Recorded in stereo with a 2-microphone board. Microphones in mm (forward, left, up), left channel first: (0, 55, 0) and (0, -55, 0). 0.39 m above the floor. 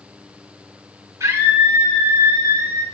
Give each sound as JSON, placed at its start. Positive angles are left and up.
{"t": 1.2, "sound": "a scream", "side_deg": -25, "distance_m": 5.5}